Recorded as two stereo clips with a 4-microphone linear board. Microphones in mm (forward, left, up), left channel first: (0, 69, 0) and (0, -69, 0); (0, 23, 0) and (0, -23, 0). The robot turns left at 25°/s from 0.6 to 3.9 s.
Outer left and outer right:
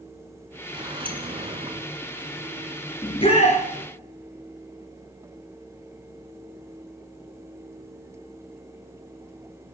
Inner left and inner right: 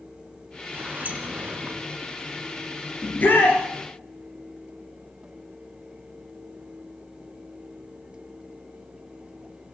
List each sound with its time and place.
0.7 s a sliding door: 35° right (ahead or behind), 1.7 m; by 1.9 s 45° right (ahead or behind), 1.7 m
3.0 s a shout: 40° left (ahead or behind), 3 m; by 3.6 s 50° left (ahead or behind), 3 m